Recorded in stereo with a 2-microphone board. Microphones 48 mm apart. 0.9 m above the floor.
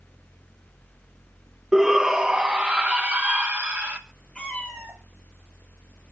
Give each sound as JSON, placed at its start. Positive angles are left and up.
{"t": 1.7, "sound": "a shout", "side_deg": -10, "distance_m": 1.0}
{"t": 4.3, "sound": "a cat meowing", "side_deg": 15, "distance_m": 6.5}